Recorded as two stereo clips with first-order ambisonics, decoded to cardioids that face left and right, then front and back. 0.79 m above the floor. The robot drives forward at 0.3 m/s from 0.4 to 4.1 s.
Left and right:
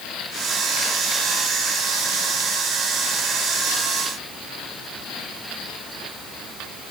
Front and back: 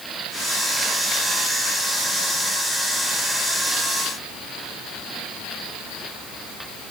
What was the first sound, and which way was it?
Only background noise.